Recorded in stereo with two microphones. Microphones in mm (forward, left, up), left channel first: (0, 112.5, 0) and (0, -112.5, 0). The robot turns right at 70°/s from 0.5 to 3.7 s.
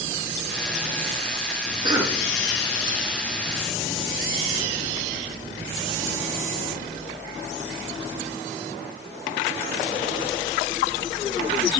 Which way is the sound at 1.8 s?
25° right (ahead or behind).